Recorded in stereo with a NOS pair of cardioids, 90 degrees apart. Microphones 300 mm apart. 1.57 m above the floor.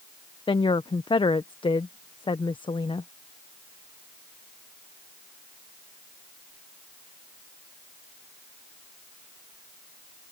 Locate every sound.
0.5 s a woman speaking: 15° left